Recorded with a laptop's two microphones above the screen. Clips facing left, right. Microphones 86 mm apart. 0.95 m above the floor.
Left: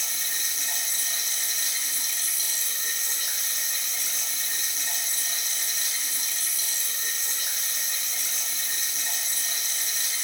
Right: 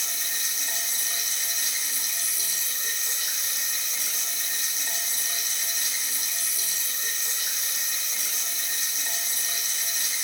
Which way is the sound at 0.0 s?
5° right (ahead or behind).